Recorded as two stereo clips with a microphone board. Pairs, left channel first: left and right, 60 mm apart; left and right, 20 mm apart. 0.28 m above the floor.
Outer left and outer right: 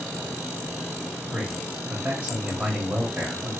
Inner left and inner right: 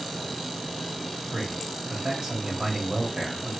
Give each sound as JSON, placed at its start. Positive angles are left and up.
{"t": 1.3, "sound": "a man speaking", "side_deg": -20, "distance_m": 0.9}